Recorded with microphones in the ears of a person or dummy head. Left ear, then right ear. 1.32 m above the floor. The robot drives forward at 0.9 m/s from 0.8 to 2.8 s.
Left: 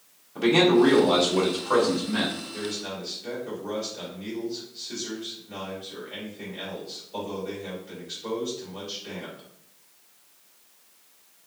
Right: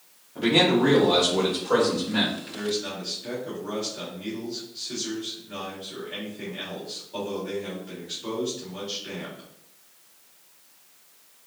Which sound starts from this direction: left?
A man speaking, at 0.3 s.